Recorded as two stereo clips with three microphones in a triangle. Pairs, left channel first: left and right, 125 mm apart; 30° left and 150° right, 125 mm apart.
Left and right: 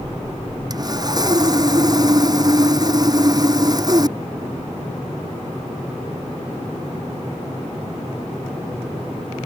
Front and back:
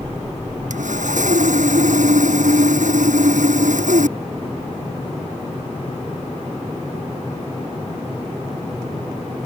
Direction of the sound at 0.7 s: 150° right.